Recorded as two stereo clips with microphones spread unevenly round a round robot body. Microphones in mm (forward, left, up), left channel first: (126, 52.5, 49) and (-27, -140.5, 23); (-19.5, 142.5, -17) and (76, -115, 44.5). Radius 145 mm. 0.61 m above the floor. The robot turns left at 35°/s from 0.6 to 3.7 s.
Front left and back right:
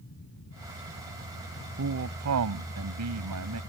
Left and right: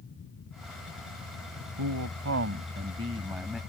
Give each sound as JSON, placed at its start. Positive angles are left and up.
{"t": 1.8, "sound": "a man speaking", "azimuth_deg": -95}